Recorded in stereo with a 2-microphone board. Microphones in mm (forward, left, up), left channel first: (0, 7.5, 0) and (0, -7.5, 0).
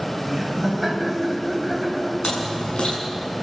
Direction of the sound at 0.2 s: Centre (ahead or behind).